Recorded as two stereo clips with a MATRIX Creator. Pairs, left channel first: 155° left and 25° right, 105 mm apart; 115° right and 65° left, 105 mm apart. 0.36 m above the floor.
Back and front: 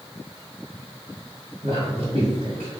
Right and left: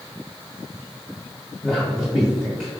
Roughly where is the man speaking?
Ahead right.